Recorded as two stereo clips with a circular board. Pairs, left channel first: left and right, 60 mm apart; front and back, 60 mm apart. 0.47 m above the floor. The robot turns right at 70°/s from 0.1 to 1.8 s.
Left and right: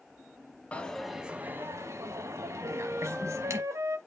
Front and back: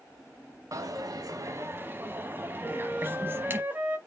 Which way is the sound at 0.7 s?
155° left.